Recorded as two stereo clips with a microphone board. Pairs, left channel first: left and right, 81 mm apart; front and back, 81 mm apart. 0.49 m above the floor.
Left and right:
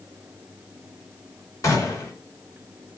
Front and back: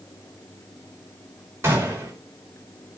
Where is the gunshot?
130° left, 1.7 m.